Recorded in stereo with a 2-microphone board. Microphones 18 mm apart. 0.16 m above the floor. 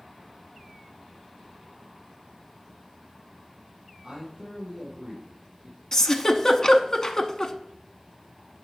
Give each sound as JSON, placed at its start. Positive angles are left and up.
{"t": 4.0, "sound": "a man speaking", "side_deg": -55, "distance_m": 4.5}
{"t": 5.9, "sound": "a giggle", "side_deg": 35, "distance_m": 0.6}